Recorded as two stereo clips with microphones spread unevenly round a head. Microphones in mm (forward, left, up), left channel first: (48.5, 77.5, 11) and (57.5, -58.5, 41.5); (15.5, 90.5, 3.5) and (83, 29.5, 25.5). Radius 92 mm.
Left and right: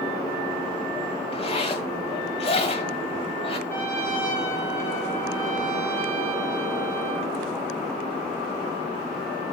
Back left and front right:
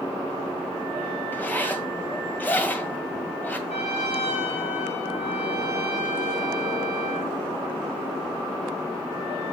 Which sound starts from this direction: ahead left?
A zipper, at 1.3 s.